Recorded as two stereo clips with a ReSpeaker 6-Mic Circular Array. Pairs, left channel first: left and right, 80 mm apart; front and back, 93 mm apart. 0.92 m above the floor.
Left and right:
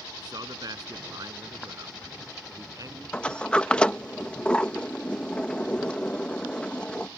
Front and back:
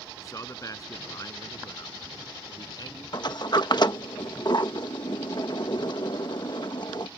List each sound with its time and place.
0.2 s a man speaking: 55° right; by 3.0 s 45° right
3.1 s a sliding door: 15° left